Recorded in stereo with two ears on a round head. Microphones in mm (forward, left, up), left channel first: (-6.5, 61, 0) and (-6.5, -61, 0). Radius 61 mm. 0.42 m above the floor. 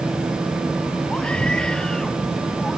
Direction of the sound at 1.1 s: 10° left (ahead or behind).